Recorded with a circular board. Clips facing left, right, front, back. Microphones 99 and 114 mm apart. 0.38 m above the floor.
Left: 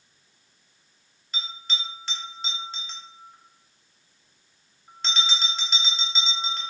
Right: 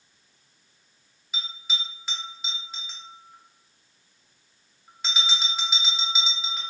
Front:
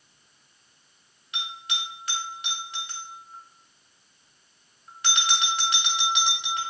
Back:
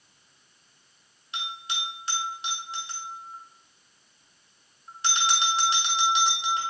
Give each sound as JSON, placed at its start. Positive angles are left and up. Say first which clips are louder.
{"t": 1.3, "sound": "a bell", "louder": "left 1 dB, back 1 dB", "azimuth_deg": -165, "distance_m": 1.3}